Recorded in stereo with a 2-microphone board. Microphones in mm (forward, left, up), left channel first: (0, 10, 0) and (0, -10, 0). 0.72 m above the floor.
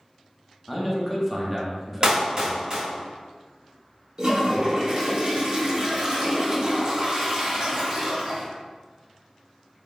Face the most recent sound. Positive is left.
turn(degrees=-35)  # may be behind; listen again after turning